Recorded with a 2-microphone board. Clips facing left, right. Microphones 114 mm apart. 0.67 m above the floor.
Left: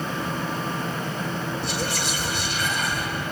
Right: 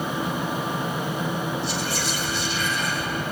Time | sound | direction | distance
1.6 | whispering | 70° left (ahead or behind) | 2.5 m